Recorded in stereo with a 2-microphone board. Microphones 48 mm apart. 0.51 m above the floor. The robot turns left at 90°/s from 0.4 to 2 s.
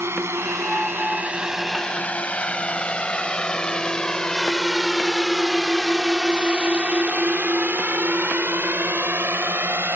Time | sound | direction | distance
0.0 | a drone | 65° right (ahead or behind) | ?